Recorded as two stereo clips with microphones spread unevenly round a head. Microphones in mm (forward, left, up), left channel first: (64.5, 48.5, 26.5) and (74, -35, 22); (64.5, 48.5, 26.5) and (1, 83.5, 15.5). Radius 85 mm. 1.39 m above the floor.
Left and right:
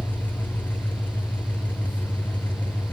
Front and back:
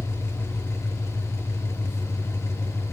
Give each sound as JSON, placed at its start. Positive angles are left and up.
{"t": 0.0, "sound": "an engine running", "azimuth_deg": 25, "distance_m": 0.7}